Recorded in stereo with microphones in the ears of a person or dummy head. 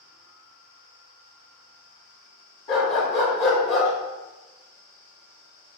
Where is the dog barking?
30° left (ahead or behind), 1.2 m.